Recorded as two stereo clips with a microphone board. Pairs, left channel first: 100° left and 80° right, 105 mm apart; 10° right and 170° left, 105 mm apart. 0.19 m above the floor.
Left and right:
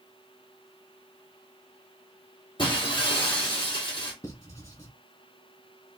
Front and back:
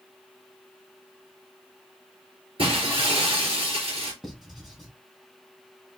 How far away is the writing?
About 1.7 m.